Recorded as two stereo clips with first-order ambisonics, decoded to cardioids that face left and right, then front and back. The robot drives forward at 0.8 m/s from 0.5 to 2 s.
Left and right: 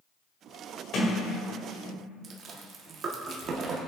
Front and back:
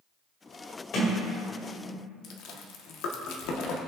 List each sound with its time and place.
0.9 s a sliding door: 45° left, 2.5 m; by 2.1 s 60° left, 2 m
2.2 s chewing: 30° right, 1.4 m